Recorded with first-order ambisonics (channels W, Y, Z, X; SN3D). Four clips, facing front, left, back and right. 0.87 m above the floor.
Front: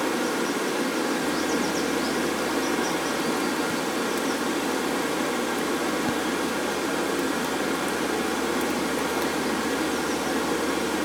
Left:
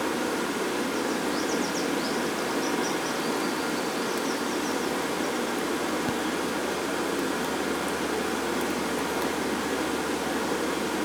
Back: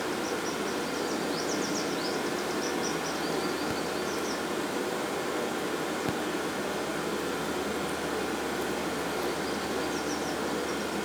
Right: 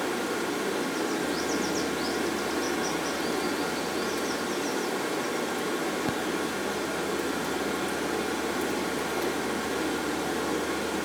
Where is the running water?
25° left, 0.9 m.